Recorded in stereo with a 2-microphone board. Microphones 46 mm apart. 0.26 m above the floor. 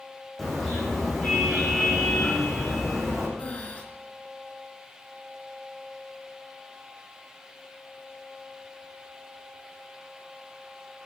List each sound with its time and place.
0.4 s a car horn: 5° left (ahead or behind), 9 m; by 3.3 s 5° right (ahead or behind), 9.5 m
3.4 s breathing: 30° left (ahead or behind), 4.5 m